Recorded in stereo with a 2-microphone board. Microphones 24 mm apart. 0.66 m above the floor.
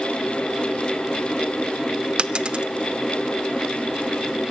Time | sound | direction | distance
2.2 | a dropped coin | 40° right (ahead or behind) | 0.6 m